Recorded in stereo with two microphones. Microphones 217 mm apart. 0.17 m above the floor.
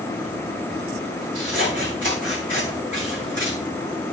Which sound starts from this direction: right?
Scissors, at 1.4 s.